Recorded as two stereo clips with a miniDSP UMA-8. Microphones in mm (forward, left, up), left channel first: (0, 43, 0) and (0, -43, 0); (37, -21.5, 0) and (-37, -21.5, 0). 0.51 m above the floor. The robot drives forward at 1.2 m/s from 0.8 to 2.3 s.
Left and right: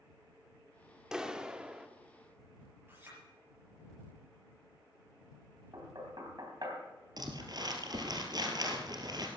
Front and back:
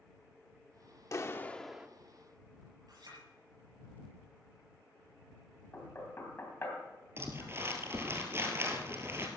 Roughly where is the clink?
Behind right.